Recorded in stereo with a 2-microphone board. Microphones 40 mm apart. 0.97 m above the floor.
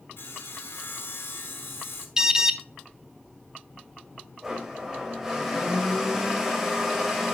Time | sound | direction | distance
0.2 | sawing | 65° left (ahead or behind) | 1.6 m
2.2 | an alarm | 15° right (ahead or behind) | 0.7 m
4.4 | a blender | 10° right (ahead or behind) | 2.5 m